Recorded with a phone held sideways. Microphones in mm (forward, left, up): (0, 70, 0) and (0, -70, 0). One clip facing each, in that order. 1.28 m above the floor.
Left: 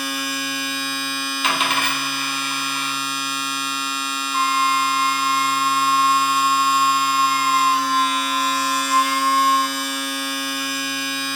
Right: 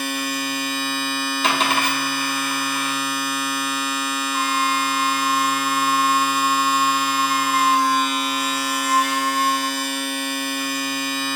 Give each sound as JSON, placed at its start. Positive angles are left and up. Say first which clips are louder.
{"t": 0.0, "sound": "a machine running", "louder": "right 2 dB", "side_deg": -45, "distance_m": 1.0}
{"t": 1.4, "sound": "a dropped coin", "louder": "right 2 dB", "side_deg": -40, "distance_m": 1.3}
{"t": 4.3, "sound": "a flute", "louder": "left 3 dB", "side_deg": 50, "distance_m": 0.9}